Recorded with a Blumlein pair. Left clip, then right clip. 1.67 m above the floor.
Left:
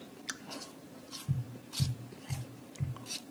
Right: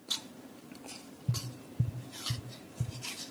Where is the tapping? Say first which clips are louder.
Right 7 dB; 10° right, 1.7 m.